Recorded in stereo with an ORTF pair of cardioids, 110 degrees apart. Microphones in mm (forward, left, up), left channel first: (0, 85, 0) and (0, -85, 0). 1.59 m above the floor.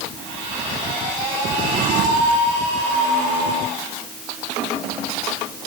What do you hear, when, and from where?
1.5 s a drawer: 55° right